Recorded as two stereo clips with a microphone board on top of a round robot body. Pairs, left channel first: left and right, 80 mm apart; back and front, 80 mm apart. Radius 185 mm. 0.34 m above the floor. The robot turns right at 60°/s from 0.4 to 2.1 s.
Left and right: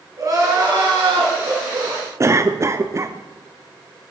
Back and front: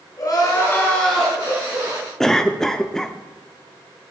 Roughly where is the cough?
Right.